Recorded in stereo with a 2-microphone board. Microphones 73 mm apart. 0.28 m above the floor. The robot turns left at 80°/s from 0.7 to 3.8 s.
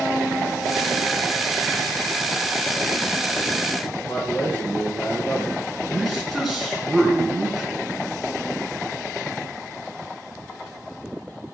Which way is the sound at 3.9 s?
30° left (ahead or behind).